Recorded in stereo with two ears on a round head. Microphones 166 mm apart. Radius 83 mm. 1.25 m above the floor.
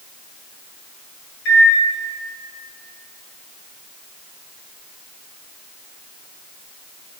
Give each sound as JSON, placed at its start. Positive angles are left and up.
{"t": 1.4, "sound": "a microwave", "side_deg": 70, "distance_m": 1.8}